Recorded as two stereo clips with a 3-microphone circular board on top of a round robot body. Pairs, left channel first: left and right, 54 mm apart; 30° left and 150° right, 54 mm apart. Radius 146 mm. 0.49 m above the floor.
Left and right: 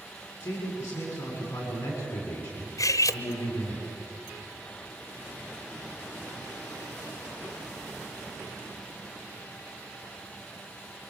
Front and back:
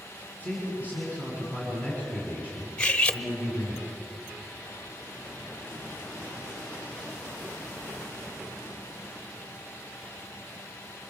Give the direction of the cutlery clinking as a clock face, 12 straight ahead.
9 o'clock.